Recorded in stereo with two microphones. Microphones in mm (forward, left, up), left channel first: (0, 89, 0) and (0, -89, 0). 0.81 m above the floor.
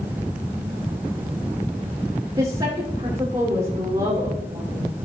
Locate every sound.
2.4 s a woman speaking: 30° right (ahead or behind), 2.5 m